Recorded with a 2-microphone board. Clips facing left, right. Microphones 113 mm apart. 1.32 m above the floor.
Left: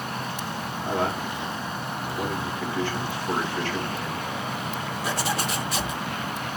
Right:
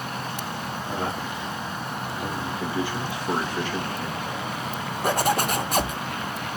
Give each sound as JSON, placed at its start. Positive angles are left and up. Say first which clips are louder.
{"t": 0.8, "sound": "a man speaking", "louder": "left 4 dB", "side_deg": 65, "distance_m": 3.5}
{"t": 2.6, "sound": "a man speaking", "louder": "right 1 dB", "side_deg": -15, "distance_m": 1.8}
{"t": 5.0, "sound": "a zipper", "louder": "right 6 dB", "side_deg": -50, "distance_m": 0.7}